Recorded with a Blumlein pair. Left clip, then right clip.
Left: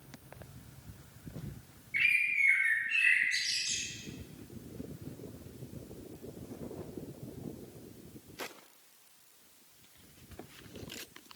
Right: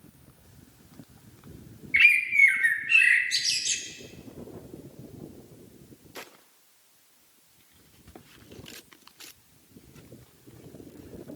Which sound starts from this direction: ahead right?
A bird, at 1.9 s.